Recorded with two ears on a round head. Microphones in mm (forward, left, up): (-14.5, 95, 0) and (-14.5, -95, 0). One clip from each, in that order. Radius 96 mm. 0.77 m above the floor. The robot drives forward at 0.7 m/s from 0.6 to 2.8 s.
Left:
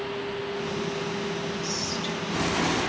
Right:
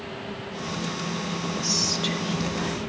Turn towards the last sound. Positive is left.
turn(degrees=-25)  # may be behind; listen again after turning